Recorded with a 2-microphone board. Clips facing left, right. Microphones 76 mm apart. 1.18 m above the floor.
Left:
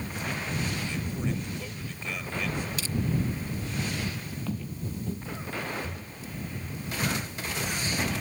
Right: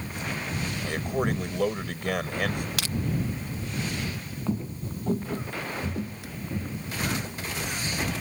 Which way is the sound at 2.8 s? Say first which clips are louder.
Right 2 dB; 70° right (ahead or behind).